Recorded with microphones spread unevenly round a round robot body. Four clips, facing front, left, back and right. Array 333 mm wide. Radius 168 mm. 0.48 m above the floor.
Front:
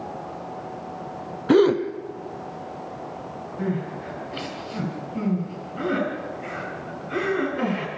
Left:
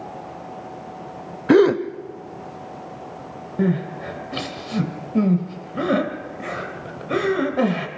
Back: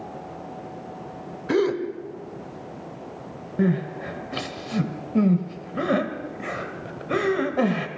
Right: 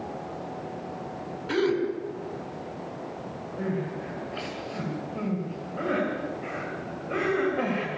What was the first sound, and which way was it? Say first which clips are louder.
A gasp: left 11 dB, front 5 dB; 65° left.